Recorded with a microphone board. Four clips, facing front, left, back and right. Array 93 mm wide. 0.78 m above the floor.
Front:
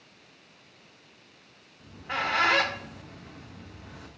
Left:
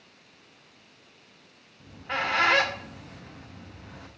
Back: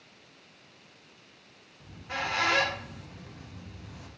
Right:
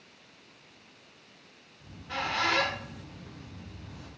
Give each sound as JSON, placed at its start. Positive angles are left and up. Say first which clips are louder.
{"t": 1.8, "sound": "a squeak", "louder": "left 5 dB, front 4 dB", "azimuth_deg": 55, "distance_m": 0.7}